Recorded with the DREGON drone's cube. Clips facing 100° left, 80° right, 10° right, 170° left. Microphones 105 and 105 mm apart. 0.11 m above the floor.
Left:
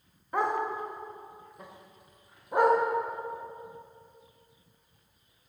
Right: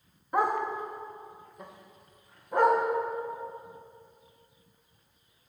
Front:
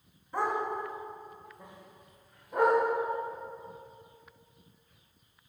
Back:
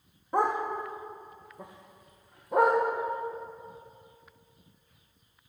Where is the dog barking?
160° right, 3.5 m; by 2.8 s 175° left, 5 m.